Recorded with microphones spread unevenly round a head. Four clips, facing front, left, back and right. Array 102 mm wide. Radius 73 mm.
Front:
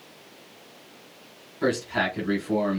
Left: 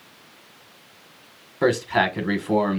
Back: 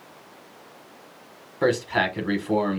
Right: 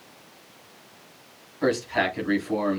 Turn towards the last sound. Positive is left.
turn(degrees=105)